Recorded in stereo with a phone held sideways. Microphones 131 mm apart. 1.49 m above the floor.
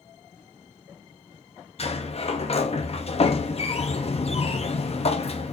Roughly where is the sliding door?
Left.